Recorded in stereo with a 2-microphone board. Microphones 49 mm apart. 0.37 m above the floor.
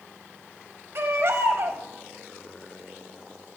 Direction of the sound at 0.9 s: 60° right (ahead or behind).